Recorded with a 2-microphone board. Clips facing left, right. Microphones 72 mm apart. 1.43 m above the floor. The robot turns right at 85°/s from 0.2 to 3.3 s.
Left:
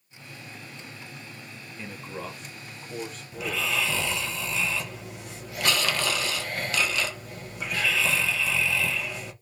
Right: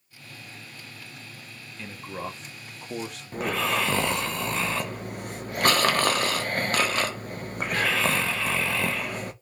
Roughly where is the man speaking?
Behind.